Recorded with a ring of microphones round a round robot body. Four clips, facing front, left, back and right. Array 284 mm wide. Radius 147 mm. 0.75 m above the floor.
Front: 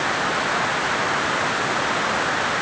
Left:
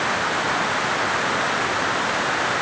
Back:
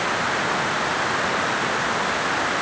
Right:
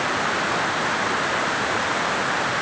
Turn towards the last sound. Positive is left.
No sound to turn to.